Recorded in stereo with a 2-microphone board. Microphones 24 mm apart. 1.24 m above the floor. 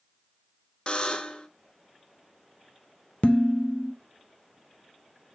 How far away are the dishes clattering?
About 0.7 m.